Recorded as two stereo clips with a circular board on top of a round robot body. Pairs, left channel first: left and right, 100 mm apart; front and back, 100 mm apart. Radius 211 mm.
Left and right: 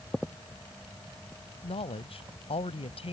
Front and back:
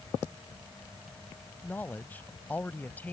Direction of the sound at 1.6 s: 70° left.